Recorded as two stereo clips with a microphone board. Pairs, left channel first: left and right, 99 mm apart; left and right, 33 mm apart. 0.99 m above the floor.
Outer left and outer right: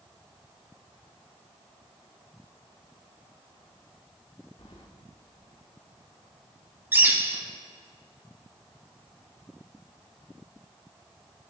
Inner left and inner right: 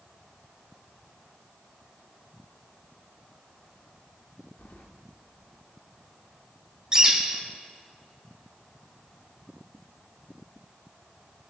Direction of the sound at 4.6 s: 70° left (ahead or behind).